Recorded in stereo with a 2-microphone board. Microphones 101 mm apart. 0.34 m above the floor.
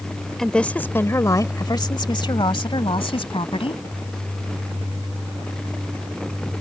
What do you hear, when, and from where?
0.4 s a woman speaking: 5° left (ahead or behind); by 3.8 s 65° left (ahead or behind)